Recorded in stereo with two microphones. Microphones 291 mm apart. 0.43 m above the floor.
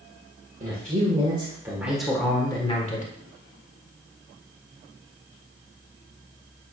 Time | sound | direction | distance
0.6 | a man speaking | 30° right (ahead or behind) | 1.9 m